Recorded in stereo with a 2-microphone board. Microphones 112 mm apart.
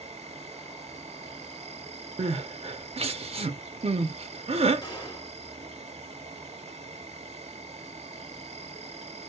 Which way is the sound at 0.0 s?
70° right (ahead or behind).